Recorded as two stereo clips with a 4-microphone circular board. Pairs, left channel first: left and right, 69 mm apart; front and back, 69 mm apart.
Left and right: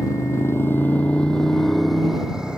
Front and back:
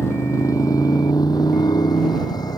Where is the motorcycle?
50° left; by 2.6 s 10° right.